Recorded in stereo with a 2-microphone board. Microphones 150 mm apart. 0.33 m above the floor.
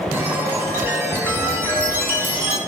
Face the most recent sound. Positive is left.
turn(degrees=-15)  # may be behind; listen again after turning